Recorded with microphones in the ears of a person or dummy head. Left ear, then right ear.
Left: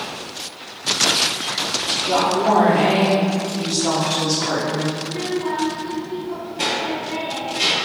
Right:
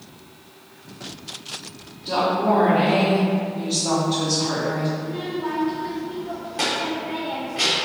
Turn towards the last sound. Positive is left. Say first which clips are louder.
# left 4 dB
turn(degrees=-35)  # may be behind; listen again after turning